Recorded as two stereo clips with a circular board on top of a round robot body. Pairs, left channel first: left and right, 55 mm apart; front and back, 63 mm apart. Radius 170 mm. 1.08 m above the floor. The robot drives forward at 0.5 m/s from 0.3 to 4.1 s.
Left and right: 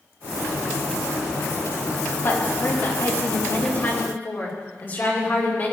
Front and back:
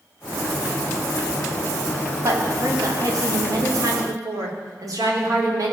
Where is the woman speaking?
135° left, 2.5 m; by 5.7 s 150° left, 3 m.